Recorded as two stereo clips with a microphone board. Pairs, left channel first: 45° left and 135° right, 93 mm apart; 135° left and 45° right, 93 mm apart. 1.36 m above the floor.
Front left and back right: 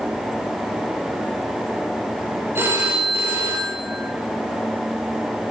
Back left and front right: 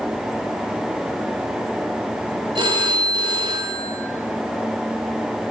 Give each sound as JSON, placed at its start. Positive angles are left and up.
{"t": 2.5, "sound": "a phone ringing", "azimuth_deg": -70, "distance_m": 3.5}